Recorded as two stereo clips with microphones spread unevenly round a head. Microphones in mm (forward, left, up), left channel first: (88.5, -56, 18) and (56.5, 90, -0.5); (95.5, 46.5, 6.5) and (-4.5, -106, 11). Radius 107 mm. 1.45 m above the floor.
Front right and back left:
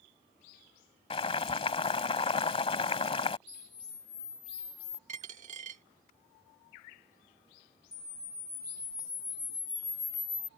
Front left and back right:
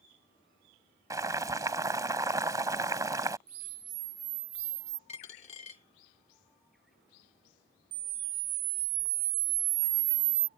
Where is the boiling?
60° right.